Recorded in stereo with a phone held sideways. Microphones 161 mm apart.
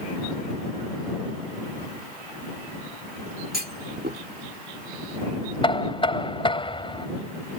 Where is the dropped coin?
I don't hear a dropped coin.